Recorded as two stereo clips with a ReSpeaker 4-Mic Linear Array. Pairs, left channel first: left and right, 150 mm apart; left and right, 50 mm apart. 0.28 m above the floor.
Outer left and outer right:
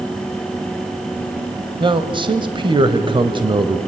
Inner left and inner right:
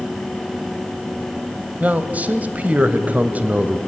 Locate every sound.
1.8 s a man speaking: 30° right (ahead or behind), 1.1 m